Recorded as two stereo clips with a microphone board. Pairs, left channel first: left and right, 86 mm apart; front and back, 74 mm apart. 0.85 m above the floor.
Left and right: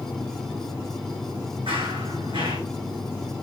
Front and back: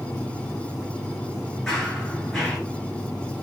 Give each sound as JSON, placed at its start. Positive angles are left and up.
{"t": 1.7, "sound": "running footsteps", "azimuth_deg": -90, "distance_m": 4.0}